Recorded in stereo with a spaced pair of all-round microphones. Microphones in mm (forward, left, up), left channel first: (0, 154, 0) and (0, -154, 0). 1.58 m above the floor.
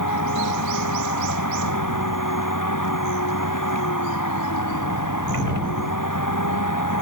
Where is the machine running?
80° left.